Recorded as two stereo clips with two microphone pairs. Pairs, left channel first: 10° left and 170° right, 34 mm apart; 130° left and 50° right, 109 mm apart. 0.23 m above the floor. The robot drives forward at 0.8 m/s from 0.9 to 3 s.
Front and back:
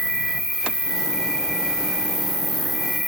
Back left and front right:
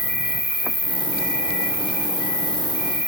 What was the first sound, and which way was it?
An insect, 55° left.